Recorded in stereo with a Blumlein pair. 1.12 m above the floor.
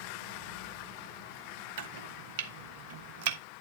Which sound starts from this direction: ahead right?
Chopping, at 1.8 s.